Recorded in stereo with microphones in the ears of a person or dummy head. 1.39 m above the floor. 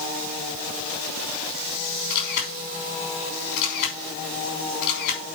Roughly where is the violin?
No violin in this recording.